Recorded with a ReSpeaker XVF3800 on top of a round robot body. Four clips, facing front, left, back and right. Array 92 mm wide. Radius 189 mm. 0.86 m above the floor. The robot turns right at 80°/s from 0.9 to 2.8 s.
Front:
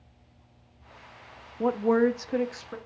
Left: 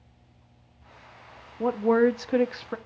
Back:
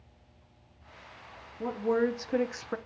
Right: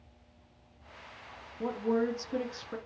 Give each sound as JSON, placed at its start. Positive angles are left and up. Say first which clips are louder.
{"t": 1.6, "sound": "a woman speaking", "louder": "left 9 dB, front 5 dB", "azimuth_deg": 40, "distance_m": 0.6}